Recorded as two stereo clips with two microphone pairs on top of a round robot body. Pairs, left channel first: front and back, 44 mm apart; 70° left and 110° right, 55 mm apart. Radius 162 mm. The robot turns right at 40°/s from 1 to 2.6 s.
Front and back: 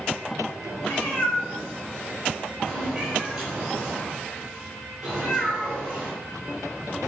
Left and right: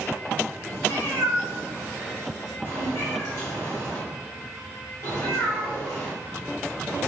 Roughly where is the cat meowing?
Ahead left.